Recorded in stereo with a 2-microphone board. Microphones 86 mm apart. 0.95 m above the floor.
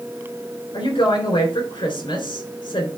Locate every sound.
0.7 s a woman speaking: 65° left (ahead or behind), 3.5 m